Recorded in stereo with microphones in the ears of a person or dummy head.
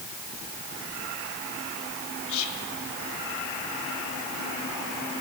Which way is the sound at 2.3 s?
75° left (ahead or behind).